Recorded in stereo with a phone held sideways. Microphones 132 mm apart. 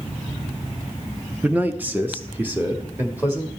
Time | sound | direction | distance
1.4 | a man speaking | 10° right (ahead or behind) | 0.5 m